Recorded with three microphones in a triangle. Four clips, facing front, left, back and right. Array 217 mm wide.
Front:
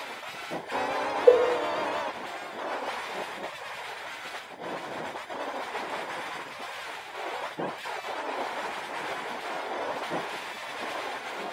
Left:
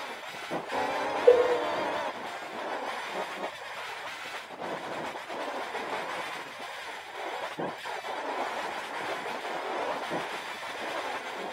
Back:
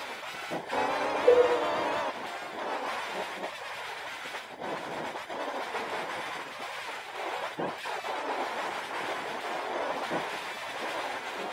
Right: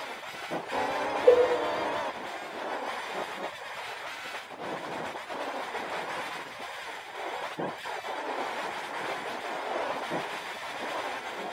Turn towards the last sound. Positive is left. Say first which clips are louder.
# even, front 2 dB
turn(degrees=10)